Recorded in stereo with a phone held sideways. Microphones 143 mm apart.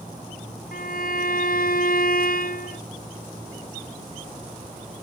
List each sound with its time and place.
0.7 s a violin: 80° left